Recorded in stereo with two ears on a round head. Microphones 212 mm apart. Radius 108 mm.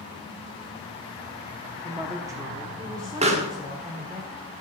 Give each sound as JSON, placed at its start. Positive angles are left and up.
{"t": 1.8, "sound": "a woman speaking", "side_deg": -10, "distance_m": 1.0}
{"t": 3.2, "sound": "a pop", "side_deg": -30, "distance_m": 1.7}